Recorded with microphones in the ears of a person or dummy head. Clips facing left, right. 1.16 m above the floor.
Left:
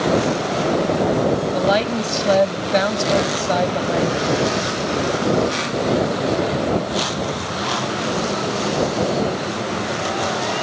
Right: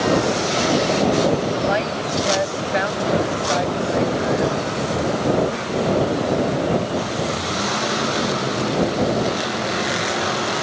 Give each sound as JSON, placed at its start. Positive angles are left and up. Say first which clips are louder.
{"t": 1.5, "sound": "a woman speaking", "louder": "left 3 dB", "side_deg": 55}